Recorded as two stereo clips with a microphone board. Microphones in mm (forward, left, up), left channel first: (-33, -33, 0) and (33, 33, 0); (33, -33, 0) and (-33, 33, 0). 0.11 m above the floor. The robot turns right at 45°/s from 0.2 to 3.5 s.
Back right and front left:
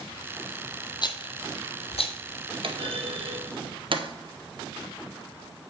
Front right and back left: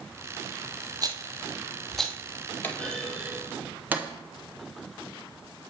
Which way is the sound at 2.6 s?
25° left.